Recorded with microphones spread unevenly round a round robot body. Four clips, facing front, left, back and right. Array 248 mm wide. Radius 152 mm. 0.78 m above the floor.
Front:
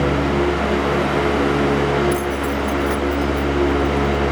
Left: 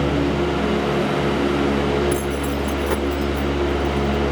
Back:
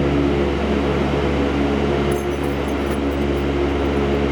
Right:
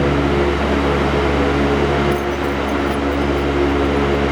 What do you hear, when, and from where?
2.1 s keys jangling: 105° left; by 4.3 s 145° left